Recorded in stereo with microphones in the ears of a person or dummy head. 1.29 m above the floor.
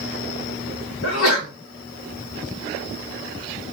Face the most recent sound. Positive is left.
turn(degrees=80)